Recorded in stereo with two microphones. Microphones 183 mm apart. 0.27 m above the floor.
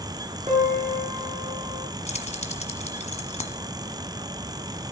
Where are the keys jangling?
40° left (ahead or behind), 1.3 m.